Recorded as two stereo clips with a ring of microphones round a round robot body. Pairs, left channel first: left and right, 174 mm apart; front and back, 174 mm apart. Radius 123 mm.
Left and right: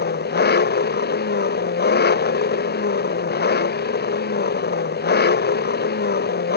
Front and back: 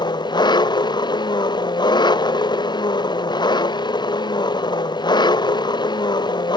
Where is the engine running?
65° left.